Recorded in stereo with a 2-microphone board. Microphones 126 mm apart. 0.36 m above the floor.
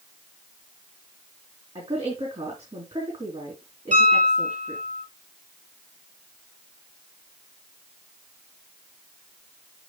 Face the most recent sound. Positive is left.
turn(degrees=-75)  # may be behind; listen again after turning